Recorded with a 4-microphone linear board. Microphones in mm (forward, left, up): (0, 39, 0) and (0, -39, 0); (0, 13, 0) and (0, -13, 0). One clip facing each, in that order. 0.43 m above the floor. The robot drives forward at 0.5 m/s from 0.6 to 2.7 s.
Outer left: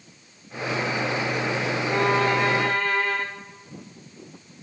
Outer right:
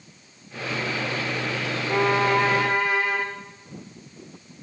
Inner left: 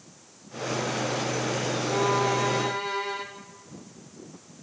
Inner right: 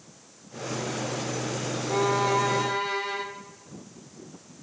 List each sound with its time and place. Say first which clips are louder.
1.9 s a violin: outer right 1 dB, inner right 1 dB; 10° right (ahead or behind), 1.2 m; by 3.2 s 5° right (ahead or behind), 1.4 m